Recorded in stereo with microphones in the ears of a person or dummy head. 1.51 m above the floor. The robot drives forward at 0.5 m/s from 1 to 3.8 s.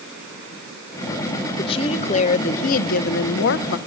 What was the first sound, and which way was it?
A woman speaking, 35° left (ahead or behind).